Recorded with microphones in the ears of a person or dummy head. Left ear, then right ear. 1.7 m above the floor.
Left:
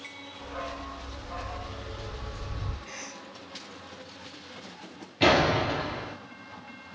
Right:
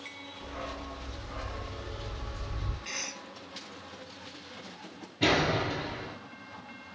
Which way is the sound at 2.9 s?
45° right (ahead or behind).